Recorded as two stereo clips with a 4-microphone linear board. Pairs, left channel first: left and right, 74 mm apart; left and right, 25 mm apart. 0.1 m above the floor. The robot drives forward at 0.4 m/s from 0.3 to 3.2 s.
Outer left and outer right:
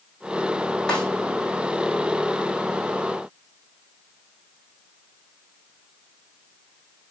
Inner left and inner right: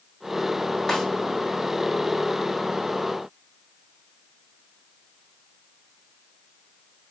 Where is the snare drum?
10° left (ahead or behind), 3.5 m.